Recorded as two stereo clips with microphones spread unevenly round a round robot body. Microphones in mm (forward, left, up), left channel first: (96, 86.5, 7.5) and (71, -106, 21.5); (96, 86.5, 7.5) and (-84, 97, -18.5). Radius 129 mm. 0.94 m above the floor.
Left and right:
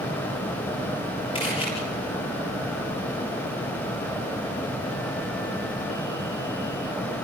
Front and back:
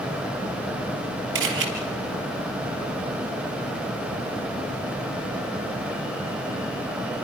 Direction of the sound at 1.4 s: 155° left.